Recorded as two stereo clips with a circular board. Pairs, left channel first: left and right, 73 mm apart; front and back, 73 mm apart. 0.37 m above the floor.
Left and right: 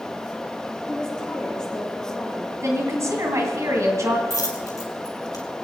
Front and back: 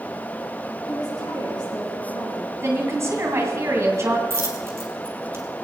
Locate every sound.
0.9 s a woman speaking: 10° left, 4.5 m
2.6 s a woman speaking: 135° right, 2.5 m
4.3 s a dropped coin: 125° left, 3 m